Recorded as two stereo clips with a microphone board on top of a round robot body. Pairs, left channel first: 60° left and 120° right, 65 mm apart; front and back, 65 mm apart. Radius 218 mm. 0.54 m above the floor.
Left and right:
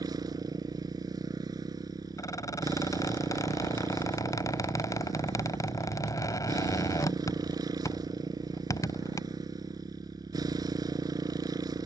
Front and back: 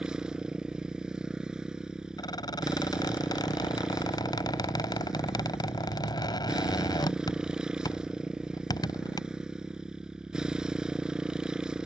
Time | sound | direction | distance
0.0 | a motorcycle | 100° right | ?
2.2 | a squeak | 20° left | ?